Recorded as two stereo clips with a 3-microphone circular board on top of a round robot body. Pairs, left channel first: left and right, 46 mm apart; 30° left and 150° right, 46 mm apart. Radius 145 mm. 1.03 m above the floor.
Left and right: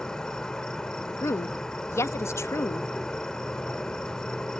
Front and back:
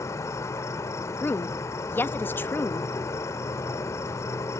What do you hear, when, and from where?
0.0 s an insect: 10° left
1.2 s a woman speaking: 70° left